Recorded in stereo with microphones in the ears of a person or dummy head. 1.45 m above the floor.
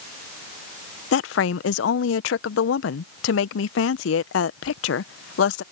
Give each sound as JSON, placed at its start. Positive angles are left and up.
{"t": 1.1, "sound": "a woman speaking", "side_deg": 75}